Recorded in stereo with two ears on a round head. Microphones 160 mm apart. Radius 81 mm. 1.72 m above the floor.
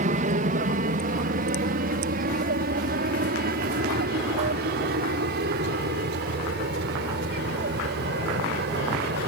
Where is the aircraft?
45° right (ahead or behind); by 9.3 s 60° right (ahead or behind).